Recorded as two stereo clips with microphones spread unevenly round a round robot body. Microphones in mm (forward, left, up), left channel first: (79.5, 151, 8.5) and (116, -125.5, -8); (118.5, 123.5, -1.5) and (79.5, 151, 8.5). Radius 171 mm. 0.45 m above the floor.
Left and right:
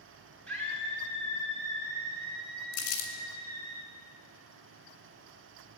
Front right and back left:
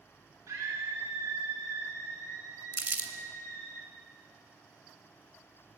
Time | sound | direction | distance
0.5 | a scream | 175° right | 5 m
2.7 | crumpling | 90° left | 2.5 m